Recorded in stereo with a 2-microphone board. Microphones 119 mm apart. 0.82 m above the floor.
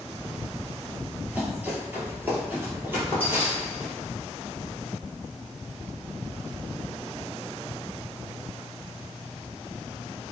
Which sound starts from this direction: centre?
Running footsteps, at 1.2 s.